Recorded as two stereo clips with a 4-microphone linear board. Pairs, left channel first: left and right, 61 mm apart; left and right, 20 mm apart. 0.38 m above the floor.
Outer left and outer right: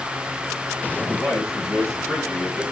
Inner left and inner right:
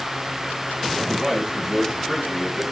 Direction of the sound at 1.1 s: 15° left (ahead or behind).